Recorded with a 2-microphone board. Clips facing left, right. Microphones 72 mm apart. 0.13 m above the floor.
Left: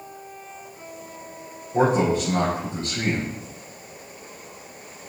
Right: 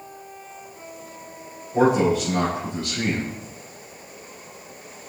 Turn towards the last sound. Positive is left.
turn(degrees=30)  # may be behind; listen again after turning